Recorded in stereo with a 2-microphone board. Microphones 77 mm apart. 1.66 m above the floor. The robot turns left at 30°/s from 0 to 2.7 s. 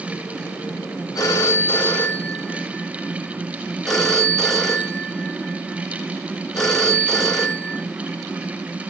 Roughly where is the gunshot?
No gunshot in this recording.